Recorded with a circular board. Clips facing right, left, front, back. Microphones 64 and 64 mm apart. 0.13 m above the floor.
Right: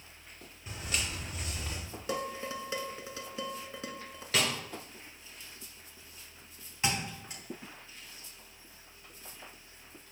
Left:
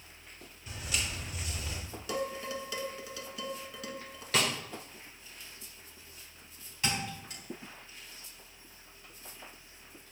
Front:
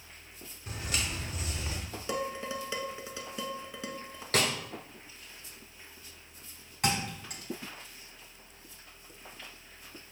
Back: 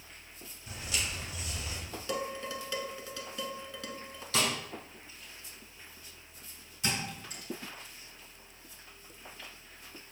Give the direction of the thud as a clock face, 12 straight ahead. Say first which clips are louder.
Right 1 dB, front 4 dB; 1 o'clock.